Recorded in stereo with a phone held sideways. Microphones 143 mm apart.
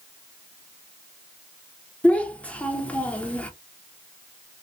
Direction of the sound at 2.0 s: 10° left (ahead or behind).